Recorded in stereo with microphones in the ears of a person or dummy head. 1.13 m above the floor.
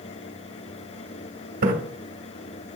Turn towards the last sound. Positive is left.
turn(degrees=-55)  # may be behind; listen again after turning